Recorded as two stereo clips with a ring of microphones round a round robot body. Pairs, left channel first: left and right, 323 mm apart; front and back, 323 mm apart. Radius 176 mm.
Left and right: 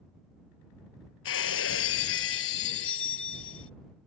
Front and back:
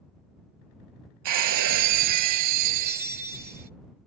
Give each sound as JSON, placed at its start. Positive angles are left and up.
{"t": 1.2, "sound": "breaking glass", "azimuth_deg": 145}